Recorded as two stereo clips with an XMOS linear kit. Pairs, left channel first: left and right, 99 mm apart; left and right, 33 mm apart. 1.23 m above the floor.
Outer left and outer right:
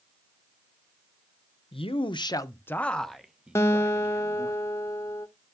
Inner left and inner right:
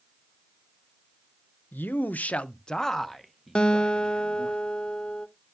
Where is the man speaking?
70° left (ahead or behind), 0.6 m; by 4.5 s 25° right (ahead or behind), 1.4 m.